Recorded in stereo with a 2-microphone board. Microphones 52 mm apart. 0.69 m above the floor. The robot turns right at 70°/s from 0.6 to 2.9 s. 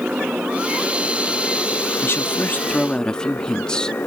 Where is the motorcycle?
25° right; by 4.1 s 135° left.